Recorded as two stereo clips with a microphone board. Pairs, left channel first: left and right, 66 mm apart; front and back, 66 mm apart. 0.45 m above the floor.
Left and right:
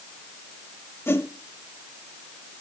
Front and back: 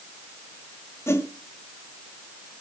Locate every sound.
1.1 s a whoosh: 40° left, 1.5 m